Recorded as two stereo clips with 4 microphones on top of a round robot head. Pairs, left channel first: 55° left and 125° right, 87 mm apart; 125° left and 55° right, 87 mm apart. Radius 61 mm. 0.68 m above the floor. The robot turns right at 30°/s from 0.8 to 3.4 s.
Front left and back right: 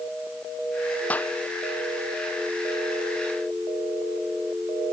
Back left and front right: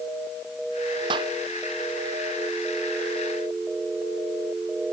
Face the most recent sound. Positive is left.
turn(degrees=50)